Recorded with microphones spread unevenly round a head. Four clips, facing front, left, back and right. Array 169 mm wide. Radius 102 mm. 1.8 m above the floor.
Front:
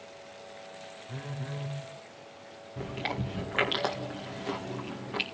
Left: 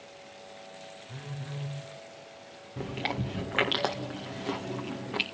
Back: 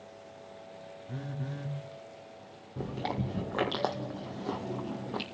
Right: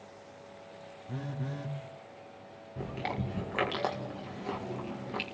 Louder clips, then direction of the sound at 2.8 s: Left 2 dB, back 1 dB; 150° left.